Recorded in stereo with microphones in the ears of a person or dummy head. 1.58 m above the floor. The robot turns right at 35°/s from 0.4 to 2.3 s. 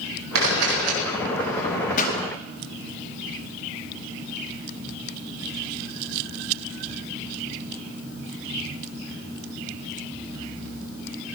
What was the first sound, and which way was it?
A camera shutter, 85° right.